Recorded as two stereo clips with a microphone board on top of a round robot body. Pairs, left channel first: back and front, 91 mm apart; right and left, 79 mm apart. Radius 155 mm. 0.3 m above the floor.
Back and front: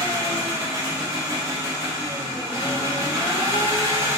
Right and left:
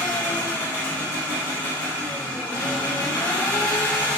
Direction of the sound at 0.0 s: 40° right.